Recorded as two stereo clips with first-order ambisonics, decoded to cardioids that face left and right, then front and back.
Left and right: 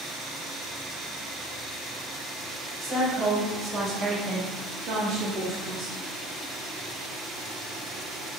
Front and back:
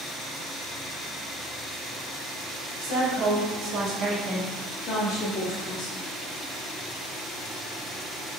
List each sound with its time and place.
2.8 s a woman speaking: 175° left, 1.4 m; by 6.0 s 20° right, 1.4 m